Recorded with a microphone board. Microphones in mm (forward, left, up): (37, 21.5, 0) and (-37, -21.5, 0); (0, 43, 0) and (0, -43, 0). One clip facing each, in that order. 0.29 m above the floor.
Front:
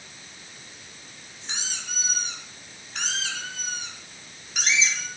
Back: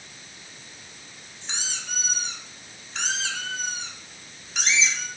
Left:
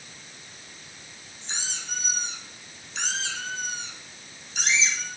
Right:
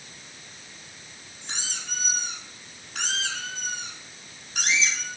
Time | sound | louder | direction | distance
1.4 | a squeak | back 1 dB, even | 55° right | 4.5 m